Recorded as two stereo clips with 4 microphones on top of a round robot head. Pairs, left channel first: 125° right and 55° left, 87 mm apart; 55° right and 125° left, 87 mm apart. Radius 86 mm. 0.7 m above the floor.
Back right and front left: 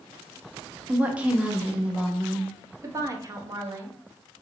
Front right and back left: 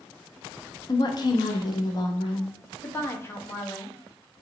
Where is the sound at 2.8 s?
5° left, 0.8 m.